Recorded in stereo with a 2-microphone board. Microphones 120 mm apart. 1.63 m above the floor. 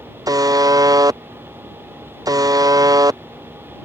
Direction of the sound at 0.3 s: 30° right (ahead or behind).